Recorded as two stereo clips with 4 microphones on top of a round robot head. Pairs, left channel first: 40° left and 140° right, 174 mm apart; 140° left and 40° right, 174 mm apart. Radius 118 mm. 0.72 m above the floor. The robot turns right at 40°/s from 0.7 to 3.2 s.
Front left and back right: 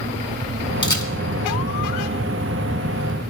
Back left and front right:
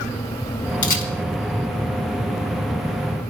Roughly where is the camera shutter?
Left.